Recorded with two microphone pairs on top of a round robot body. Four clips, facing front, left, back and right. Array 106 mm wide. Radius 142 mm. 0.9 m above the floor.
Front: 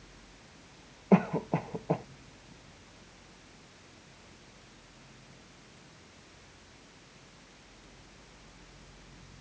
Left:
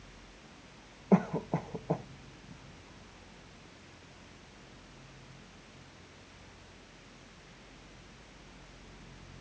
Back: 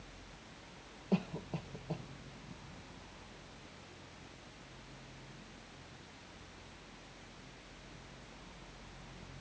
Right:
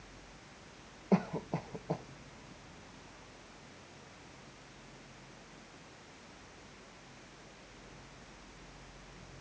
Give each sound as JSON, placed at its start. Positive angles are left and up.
{"t": 1.1, "sound": "a cough", "azimuth_deg": 20}